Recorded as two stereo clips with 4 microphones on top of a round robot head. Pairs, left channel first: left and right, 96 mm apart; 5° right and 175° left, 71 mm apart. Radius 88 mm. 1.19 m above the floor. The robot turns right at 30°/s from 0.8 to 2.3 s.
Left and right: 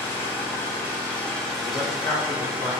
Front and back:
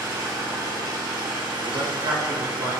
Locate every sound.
0.0 s an engine running: 155° left, 1.4 m; by 2.8 s 160° right, 1.4 m
1.6 s a man speaking: 135° left, 1.5 m; by 2.7 s 155° left, 1.5 m